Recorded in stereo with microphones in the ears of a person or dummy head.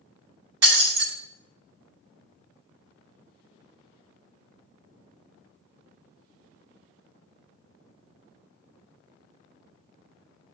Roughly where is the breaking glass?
Right.